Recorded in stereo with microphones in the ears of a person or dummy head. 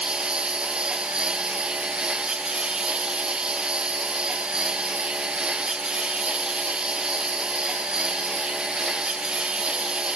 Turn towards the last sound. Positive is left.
turn(degrees=0)  # may be behind; listen again after turning